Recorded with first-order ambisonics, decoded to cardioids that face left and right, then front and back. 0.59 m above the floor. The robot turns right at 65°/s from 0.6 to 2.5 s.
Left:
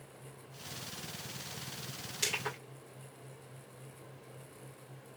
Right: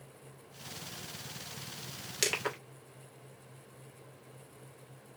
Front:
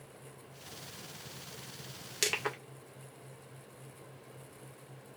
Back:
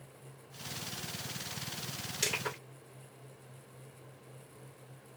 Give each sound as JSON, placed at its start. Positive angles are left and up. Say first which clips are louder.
{"t": 2.2, "sound": "crushing", "louder": "right 3 dB, front 2 dB", "azimuth_deg": -55, "distance_m": 1.6}